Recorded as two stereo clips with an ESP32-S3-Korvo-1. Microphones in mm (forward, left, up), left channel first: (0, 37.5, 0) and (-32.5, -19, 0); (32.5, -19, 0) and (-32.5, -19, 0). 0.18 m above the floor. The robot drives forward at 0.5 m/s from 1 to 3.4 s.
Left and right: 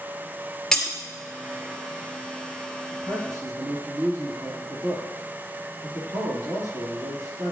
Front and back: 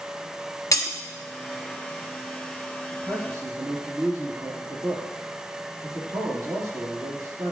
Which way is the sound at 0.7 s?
20° right.